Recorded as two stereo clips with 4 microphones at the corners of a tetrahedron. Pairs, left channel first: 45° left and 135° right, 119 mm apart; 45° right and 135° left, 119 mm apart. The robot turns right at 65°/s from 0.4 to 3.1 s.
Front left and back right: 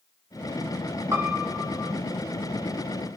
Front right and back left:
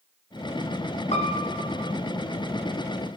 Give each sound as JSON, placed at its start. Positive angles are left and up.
{"t": 1.1, "sound": "a piano", "azimuth_deg": -70, "distance_m": 2.5}